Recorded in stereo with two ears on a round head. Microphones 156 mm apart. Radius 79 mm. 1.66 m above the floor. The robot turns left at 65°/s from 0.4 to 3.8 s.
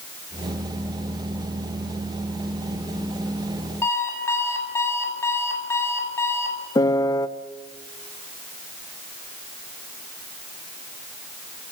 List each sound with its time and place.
3.8 s an alarm clock: 15° left (ahead or behind), 7.5 m
6.8 s a piano: 20° left (ahead or behind), 0.9 m